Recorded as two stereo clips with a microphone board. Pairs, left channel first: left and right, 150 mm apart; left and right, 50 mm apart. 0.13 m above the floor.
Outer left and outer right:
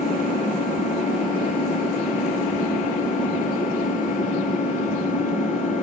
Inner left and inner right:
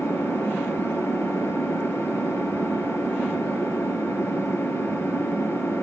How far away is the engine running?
About 1.7 m.